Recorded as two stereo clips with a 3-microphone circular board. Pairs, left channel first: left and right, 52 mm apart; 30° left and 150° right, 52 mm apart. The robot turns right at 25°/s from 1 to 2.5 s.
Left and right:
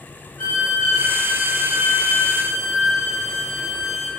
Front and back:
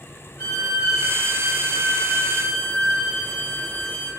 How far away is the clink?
I don't hear a clink.